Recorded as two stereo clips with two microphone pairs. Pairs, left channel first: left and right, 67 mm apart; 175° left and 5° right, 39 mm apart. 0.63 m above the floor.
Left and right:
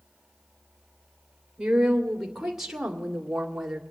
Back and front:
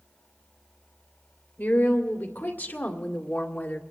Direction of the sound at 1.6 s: 175° right.